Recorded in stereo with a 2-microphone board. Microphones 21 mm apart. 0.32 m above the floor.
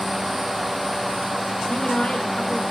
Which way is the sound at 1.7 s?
55° left (ahead or behind).